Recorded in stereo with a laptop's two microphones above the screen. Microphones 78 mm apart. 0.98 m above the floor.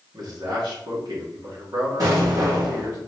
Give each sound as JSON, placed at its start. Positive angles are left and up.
{"t": 0.1, "sound": "a man speaking", "side_deg": -60, "distance_m": 2.5}
{"t": 2.0, "sound": "an explosion", "side_deg": -55, "distance_m": 2.5}